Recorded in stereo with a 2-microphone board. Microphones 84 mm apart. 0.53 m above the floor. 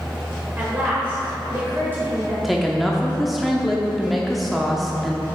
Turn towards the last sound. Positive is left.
turn(degrees=0)  # may be behind; listen again after turning